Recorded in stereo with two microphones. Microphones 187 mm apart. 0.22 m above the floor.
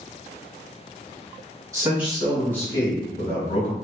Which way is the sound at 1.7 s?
15° right (ahead or behind).